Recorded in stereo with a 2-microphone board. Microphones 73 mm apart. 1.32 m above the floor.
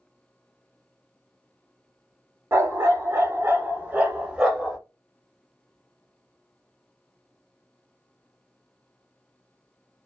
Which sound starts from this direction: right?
A dog barking, at 2.5 s.